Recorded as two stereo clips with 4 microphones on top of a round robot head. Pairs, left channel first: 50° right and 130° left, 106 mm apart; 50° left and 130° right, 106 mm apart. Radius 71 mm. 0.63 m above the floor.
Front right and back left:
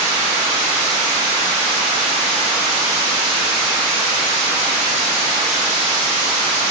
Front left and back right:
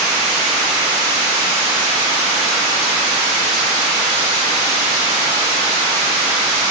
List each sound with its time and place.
Only background noise.